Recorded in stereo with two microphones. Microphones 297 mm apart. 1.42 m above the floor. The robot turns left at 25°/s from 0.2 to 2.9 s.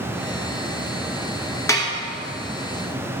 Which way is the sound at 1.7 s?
10° left (ahead or behind).